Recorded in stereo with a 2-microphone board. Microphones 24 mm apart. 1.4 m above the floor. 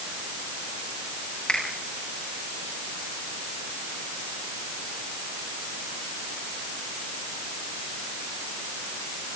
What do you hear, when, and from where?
1.5 s a finger snap: 40° left (ahead or behind), 8 m